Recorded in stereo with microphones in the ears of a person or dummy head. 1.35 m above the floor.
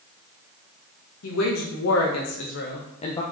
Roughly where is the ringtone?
No ringtone in this recording.